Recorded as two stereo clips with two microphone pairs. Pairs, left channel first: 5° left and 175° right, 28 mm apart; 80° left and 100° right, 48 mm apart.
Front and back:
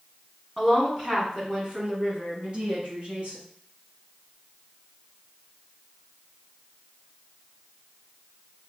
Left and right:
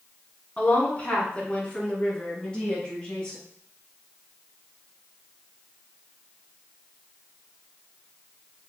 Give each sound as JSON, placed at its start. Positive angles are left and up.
{"t": 0.6, "sound": "a woman speaking", "azimuth_deg": 115, "distance_m": 1.5}